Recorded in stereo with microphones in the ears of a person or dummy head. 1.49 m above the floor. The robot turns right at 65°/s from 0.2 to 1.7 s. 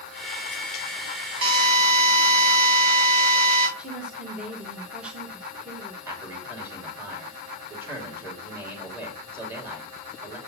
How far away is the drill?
About 7.5 m.